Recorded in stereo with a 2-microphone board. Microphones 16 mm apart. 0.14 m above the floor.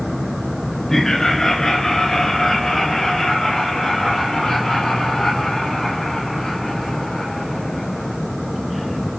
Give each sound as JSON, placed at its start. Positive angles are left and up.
{"t": 0.9, "sound": "laughter", "side_deg": 30, "distance_m": 1.7}